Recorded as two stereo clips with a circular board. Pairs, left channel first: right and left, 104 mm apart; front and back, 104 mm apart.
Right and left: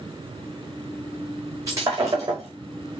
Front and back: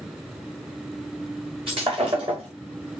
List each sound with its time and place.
1.7 s breaking glass: 150° left, 5.5 m